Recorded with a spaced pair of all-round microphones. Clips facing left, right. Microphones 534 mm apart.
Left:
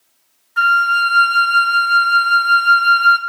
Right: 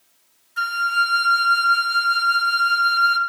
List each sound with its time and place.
0.6 s a flute: 75° left (ahead or behind), 1.0 m